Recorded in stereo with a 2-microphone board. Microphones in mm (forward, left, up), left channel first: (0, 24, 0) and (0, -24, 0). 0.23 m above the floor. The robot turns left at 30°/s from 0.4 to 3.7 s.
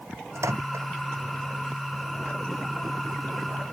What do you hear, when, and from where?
0.3 s a microwave: 85° right; by 0.9 s 70° right (ahead or behind)